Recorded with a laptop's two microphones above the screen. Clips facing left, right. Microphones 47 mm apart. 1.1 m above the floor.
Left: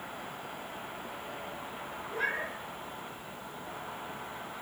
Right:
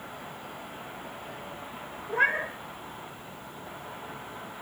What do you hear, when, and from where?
2.1 s a cat meowing: 55° right (ahead or behind), 1.5 m